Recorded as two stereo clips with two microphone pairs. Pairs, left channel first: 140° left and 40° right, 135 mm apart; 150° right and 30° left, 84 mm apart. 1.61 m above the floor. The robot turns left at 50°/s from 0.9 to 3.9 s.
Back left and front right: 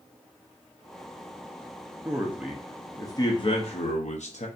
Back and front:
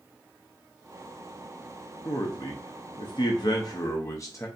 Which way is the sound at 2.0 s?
105° right.